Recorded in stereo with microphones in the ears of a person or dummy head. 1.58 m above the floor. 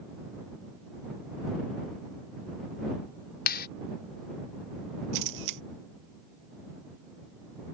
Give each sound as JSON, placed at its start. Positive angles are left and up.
{"t": 3.5, "sound": "a clap", "side_deg": 60}
{"t": 5.1, "sound": "a camera shutter", "side_deg": -70}